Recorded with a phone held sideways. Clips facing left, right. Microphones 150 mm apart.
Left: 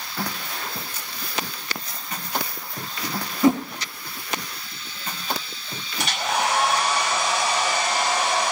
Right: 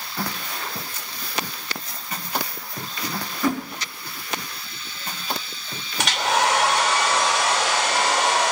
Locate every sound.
3.4 s a whoosh: 20° left (ahead or behind), 0.9 m
6.0 s a hair dryer: 85° right, 3 m